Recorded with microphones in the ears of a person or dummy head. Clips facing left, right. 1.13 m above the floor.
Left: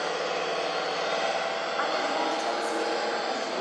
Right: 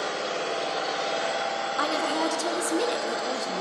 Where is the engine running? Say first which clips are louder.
Even; 25° right (ahead or behind), 4 m.